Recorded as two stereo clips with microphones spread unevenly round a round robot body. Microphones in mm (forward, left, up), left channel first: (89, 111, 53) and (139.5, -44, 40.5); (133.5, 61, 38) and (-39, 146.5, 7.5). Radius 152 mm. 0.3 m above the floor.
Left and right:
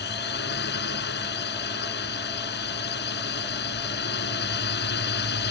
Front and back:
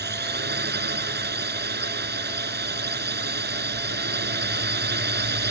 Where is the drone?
125° left.